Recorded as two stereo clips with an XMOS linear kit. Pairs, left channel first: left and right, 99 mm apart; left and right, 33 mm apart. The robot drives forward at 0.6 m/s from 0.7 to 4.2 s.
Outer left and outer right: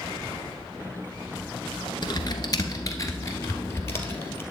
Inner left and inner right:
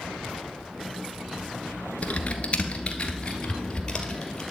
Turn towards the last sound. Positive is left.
turn(degrees=25)  # may be behind; listen again after turning